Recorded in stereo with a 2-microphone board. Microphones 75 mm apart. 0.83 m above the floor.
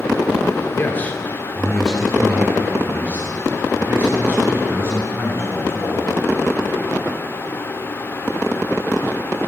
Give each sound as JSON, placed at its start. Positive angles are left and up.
{"t": 0.8, "sound": "a man speaking", "side_deg": 30, "distance_m": 2.5}